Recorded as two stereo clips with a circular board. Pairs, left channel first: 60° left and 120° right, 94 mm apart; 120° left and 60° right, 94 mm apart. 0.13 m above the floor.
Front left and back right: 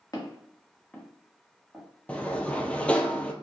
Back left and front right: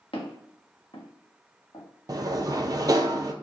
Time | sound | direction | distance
0.1 | footsteps | 115° left | 1.8 m
2.1 | a sliding door | 15° right | 0.5 m